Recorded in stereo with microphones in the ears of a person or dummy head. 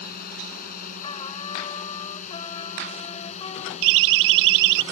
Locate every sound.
0.0 s a drone: 50° left (ahead or behind); by 4.9 s 35° left (ahead or behind)
1.0 s a trumpet: 30° left (ahead or behind)
3.8 s a siren: 75° right (ahead or behind); by 4.8 s 70° right (ahead or behind)